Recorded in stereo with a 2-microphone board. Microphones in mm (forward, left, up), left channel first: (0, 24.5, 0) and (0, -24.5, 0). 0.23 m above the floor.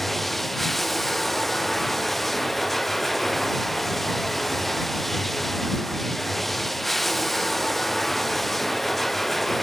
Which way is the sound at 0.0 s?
Centre (ahead or behind).